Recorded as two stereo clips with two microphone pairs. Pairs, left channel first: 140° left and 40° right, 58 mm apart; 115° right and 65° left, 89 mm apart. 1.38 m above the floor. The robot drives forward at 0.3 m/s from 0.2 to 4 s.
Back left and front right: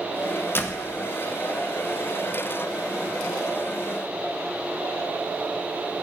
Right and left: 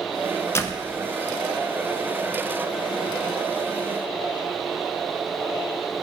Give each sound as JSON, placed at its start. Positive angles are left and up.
{"t": 0.6, "sound": "a door slam", "azimuth_deg": -175, "distance_m": 0.7}